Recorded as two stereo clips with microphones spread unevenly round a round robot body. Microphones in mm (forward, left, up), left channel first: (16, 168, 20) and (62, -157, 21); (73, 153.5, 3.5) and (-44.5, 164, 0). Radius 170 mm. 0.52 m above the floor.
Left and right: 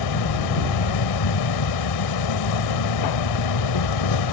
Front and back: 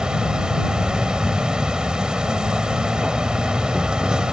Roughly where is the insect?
Left.